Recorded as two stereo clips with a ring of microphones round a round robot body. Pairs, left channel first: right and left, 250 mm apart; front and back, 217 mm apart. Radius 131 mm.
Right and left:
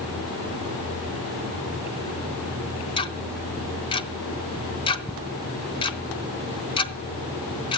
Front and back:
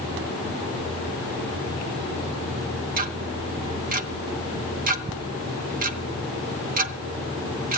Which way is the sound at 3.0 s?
150° right.